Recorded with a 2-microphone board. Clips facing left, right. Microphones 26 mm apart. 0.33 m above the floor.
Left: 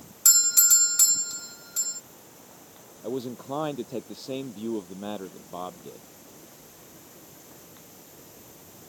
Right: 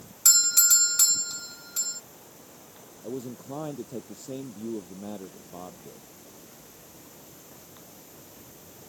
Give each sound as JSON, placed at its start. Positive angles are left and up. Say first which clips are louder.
{"t": 0.2, "sound": "a doorbell", "louder": "even", "side_deg": -15}
{"t": 3.0, "sound": "a man speaking", "louder": "left 4 dB", "side_deg": 60}